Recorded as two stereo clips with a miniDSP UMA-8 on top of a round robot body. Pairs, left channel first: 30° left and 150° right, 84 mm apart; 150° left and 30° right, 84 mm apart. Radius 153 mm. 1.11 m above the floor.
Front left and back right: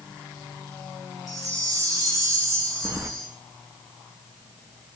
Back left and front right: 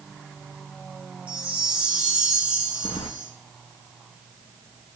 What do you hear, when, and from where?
1.3 s a chime: 105° right, 2.5 m
2.8 s keys jangling: 150° left, 0.7 m